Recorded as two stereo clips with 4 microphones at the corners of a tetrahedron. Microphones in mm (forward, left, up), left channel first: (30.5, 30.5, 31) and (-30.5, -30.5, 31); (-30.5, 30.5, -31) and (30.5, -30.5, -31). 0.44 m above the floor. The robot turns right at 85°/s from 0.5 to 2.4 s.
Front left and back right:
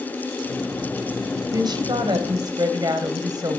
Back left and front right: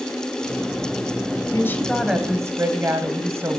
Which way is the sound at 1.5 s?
175° right.